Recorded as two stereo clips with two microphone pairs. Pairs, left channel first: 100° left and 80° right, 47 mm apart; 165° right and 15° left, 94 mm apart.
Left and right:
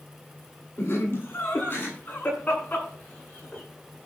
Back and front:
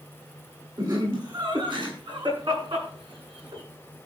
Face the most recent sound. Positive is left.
turn(degrees=40)